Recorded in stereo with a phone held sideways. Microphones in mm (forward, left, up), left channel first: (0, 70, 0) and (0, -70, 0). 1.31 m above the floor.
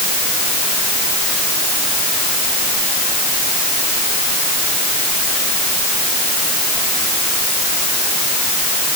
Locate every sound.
Only background noise.